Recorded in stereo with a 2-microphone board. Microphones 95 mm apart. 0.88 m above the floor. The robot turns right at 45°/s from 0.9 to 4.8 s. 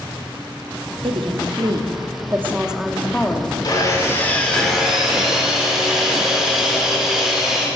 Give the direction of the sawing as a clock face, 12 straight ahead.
8 o'clock.